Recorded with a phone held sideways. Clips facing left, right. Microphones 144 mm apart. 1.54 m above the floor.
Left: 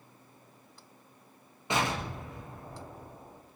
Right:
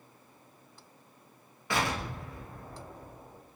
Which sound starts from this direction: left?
An explosion, at 1.7 s.